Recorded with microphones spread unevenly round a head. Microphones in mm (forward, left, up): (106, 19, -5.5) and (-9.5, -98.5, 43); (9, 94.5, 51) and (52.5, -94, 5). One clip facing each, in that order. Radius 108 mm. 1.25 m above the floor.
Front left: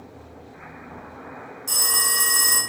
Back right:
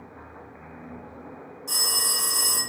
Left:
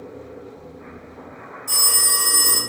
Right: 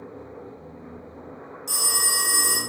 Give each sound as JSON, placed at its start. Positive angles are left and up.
{"t": 1.7, "sound": "a phone ringing", "azimuth_deg": -10, "distance_m": 1.4}